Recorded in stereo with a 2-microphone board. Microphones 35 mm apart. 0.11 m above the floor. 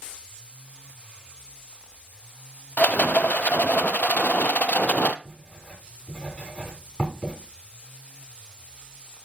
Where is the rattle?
55° left (ahead or behind), 0.6 m.